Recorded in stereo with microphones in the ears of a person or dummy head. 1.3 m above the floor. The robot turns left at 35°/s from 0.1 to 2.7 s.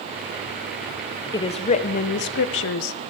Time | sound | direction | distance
1.3 | a woman speaking | 165° left | 0.5 m